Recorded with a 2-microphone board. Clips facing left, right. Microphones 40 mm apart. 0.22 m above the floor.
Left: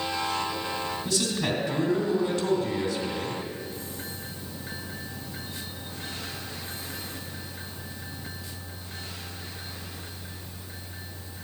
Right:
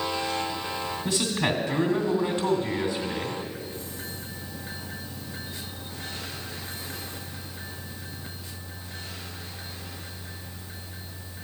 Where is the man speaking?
20° right (ahead or behind), 1.9 m.